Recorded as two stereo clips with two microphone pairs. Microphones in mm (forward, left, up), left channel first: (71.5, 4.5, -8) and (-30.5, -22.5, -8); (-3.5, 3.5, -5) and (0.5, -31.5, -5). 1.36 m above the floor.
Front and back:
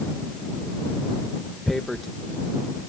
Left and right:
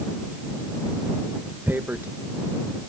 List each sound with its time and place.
1.7 s tearing paper: 70° right